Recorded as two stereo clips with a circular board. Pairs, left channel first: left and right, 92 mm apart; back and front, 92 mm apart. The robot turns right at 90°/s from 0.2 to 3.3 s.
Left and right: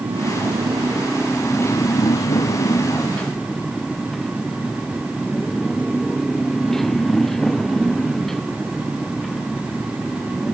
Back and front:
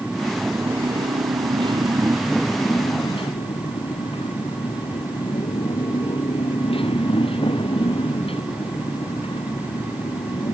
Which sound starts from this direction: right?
A motorcycle, at 0.0 s.